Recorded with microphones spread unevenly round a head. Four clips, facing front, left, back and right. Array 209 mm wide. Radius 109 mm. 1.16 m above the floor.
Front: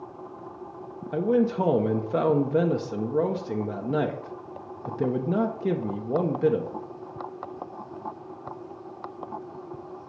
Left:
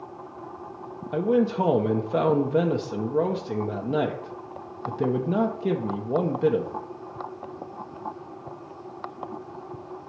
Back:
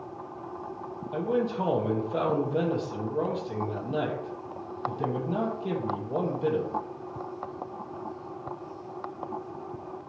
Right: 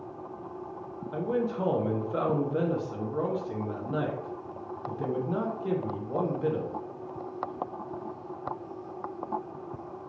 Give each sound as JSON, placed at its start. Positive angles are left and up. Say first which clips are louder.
{"t": 1.1, "sound": "a man speaking", "louder": "left 7 dB, front 5 dB", "azimuth_deg": 40, "distance_m": 0.9}